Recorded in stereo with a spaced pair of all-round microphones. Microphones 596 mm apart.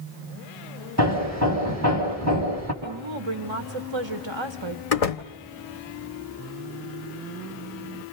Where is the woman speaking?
50° right (ahead or behind), 1.4 m.